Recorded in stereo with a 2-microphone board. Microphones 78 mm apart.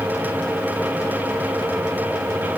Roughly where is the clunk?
I don't hear a clunk.